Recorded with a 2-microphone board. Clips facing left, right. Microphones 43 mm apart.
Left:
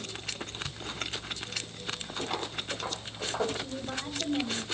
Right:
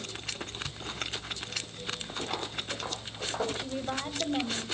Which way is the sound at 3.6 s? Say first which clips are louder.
Right 2 dB; 40° right (ahead or behind).